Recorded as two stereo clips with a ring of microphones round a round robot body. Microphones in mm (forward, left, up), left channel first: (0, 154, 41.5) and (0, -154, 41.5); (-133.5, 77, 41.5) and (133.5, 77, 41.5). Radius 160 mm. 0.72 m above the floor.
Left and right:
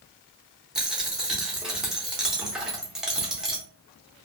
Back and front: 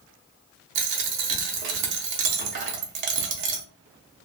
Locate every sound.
0.8 s a dropped coin: straight ahead, 0.7 m